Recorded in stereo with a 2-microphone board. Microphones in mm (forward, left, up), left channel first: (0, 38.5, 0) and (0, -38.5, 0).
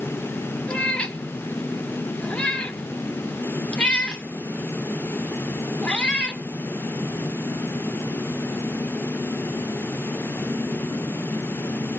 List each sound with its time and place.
0.7 s a cat meowing: 15° left (ahead or behind), 1.0 m